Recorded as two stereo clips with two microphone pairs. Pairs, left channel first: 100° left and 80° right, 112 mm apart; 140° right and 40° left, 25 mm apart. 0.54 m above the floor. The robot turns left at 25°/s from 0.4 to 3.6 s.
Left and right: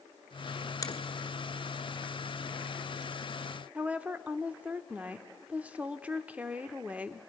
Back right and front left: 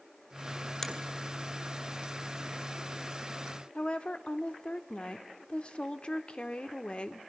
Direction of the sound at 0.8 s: 150° left.